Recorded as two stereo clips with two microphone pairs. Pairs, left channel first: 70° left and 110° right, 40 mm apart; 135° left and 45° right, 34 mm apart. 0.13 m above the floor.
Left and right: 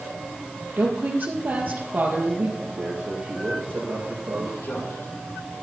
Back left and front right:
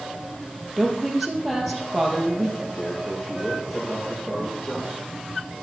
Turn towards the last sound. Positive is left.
turn(degrees=90)